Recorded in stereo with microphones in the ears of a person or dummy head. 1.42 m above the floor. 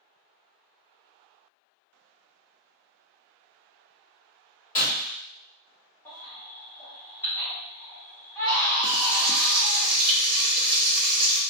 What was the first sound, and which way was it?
Breaking glass, 35° left (ahead or behind).